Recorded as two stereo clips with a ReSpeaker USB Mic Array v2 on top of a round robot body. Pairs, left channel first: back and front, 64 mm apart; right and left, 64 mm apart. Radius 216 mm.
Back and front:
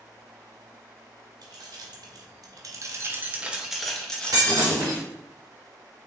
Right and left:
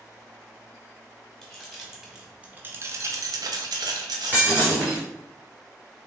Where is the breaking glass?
25° left, 1.1 m.